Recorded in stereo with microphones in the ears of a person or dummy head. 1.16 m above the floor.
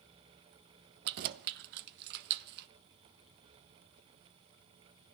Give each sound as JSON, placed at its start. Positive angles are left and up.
{"t": 1.1, "sound": "keys jangling", "side_deg": -60, "distance_m": 0.6}